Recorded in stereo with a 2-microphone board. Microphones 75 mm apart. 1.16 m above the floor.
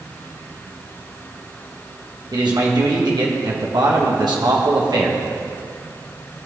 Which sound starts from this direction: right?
A man speaking, at 2.3 s.